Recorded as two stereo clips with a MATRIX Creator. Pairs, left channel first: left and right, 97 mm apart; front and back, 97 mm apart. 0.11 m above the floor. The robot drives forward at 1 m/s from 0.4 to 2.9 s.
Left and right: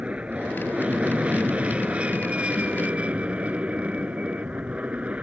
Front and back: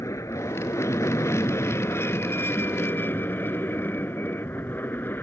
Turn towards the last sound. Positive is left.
turn(degrees=-30)